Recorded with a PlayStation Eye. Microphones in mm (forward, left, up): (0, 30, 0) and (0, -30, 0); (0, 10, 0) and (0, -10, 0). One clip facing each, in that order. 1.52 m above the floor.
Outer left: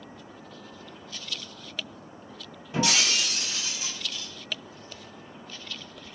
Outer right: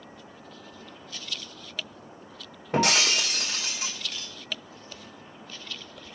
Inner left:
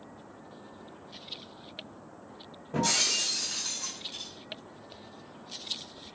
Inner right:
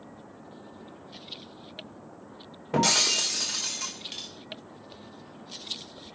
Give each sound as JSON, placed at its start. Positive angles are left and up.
{"t": 2.7, "sound": "breaking glass", "side_deg": -60, "distance_m": 3.0}